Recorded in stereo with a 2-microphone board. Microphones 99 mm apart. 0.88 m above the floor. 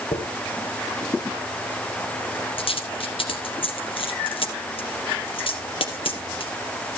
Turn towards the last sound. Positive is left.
turn(degrees=65)  # may be behind; listen again after turning